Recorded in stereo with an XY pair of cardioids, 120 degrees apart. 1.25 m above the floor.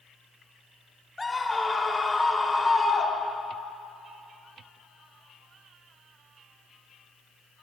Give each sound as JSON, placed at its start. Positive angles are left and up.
{"t": 1.2, "sound": "a scream", "azimuth_deg": 15, "distance_m": 2.5}